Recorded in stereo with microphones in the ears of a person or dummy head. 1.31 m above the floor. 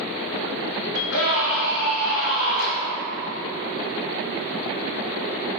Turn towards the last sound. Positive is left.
turn(degrees=85)